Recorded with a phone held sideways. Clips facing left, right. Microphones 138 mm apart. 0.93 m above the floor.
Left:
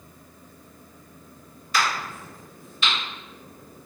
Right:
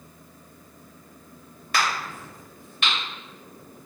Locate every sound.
1.7 s a crack: 65° right (ahead or behind), 1.9 m